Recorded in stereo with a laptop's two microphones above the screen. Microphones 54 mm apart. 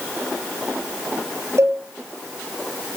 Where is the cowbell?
60° right (ahead or behind), 3 m.